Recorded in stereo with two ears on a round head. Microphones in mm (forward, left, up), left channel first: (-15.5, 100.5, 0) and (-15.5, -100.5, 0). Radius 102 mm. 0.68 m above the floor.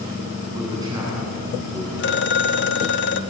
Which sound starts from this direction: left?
A phone ringing, at 2.0 s.